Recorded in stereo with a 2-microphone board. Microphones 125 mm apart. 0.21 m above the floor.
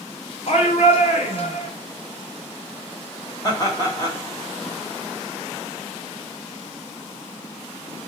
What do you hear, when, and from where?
0.5 s a shout: 60° left (ahead or behind), 1.8 m
3.4 s laughter: 35° left (ahead or behind), 1.9 m